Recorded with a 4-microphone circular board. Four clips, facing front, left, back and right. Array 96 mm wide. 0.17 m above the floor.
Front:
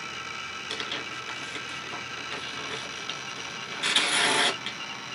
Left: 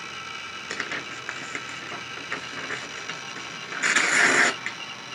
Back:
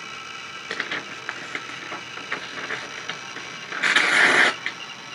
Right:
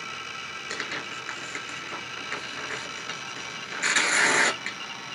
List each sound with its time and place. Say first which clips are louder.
0.7 s tearing paper: left 2 dB, back 7 dB; 155° left, 0.7 m